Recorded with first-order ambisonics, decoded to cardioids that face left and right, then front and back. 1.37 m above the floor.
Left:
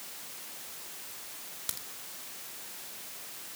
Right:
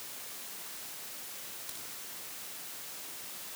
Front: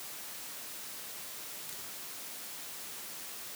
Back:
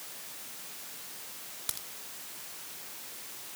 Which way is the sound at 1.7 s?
140° left.